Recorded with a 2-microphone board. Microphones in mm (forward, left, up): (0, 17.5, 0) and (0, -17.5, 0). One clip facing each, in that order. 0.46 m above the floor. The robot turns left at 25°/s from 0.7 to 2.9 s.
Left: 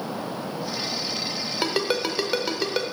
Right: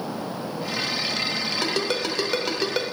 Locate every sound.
1.6 s a ringtone: 20° left (ahead or behind), 1.1 m; by 2.8 s centre (ahead or behind), 1.1 m